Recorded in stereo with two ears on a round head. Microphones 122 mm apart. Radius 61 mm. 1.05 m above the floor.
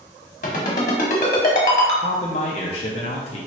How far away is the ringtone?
About 1.0 m.